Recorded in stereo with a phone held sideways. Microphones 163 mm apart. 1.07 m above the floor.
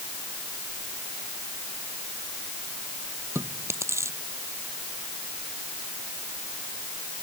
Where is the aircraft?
No aircraft in this recording.